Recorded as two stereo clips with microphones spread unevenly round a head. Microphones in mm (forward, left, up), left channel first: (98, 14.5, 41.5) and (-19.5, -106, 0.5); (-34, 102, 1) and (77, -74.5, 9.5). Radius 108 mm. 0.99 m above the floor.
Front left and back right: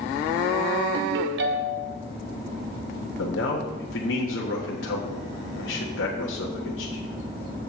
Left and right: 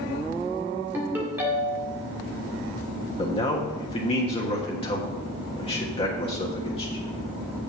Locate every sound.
0.9 s a ringtone: 140° right, 1.7 m
3.2 s a man speaking: 60° left, 1.3 m